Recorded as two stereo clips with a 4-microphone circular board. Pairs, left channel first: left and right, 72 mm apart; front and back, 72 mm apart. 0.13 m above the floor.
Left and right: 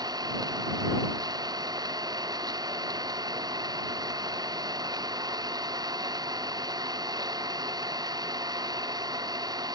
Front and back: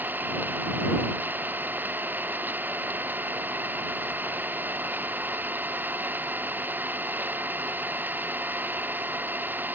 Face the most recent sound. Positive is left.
turn(degrees=-115)